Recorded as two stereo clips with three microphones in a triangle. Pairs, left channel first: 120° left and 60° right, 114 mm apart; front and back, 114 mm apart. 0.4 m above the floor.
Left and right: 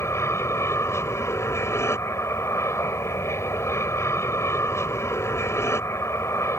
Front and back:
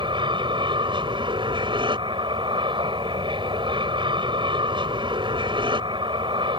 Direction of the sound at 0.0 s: 175° left.